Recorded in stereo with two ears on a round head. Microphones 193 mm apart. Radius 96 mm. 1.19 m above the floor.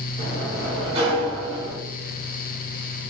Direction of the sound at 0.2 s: 25° right (ahead or behind).